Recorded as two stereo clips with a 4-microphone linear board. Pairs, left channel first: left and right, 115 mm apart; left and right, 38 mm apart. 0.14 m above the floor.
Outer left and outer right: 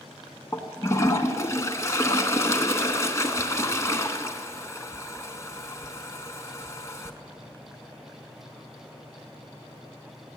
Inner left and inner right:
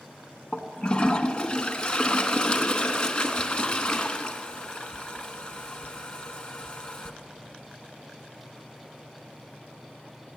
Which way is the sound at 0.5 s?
25° left (ahead or behind).